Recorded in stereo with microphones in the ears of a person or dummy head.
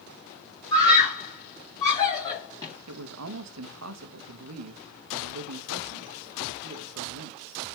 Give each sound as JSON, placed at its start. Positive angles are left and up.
{"t": 0.7, "sound": "a scream", "side_deg": 20, "distance_m": 3.0}
{"t": 2.9, "sound": "a man speaking", "side_deg": -80, "distance_m": 0.8}